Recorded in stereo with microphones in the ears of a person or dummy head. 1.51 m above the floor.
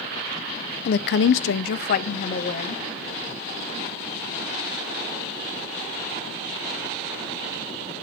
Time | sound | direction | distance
0.8 | a woman speaking | 55° left (ahead or behind) | 0.6 m